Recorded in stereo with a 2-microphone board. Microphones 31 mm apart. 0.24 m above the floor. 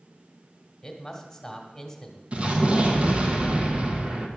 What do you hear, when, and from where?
0.8 s a man speaking: 10° left (ahead or behind), 1.5 m
2.3 s an explosion: 40° right (ahead or behind), 1.4 m